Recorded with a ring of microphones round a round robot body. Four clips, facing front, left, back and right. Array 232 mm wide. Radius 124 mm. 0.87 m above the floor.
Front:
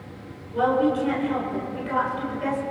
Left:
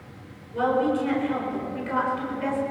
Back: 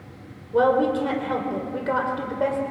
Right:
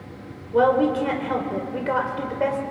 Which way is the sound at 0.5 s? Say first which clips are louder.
Right 5 dB, back 2 dB; 130° right.